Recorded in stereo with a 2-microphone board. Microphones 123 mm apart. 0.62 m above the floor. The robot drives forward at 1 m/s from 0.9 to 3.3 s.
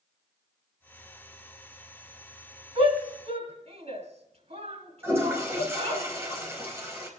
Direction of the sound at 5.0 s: 20° right (ahead or behind).